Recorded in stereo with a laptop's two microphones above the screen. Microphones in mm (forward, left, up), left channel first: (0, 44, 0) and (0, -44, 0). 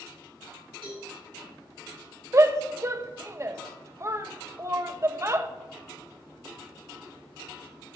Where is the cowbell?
80° right, 4 m.